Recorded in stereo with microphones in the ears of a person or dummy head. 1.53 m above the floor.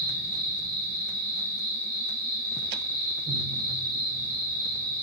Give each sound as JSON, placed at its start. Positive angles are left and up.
{"t": 0.0, "sound": "an insect", "side_deg": -45, "distance_m": 1.9}